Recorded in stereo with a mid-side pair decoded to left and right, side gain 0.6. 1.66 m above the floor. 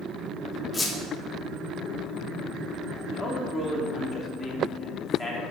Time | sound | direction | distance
0.7 | a squeak | 15° left | 1.7 m
3.1 | a man speaking | 10° left | 3 m